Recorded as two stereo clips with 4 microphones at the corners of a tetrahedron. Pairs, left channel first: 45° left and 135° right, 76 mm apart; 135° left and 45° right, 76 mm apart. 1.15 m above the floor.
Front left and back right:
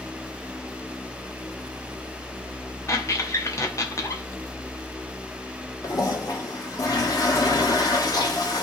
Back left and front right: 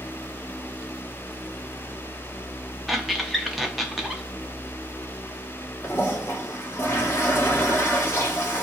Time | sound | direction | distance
2.9 | a squeak | 45° left | 0.7 m
5.8 | a toilet flushing | 80° left | 1.1 m